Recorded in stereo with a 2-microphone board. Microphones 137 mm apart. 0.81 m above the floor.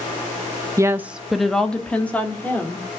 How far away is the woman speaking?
About 0.5 m.